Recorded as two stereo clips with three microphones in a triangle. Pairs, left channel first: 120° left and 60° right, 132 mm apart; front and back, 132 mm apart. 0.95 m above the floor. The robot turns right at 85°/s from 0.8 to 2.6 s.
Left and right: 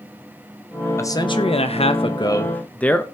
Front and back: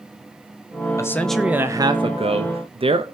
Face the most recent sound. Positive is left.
turn(degrees=-165)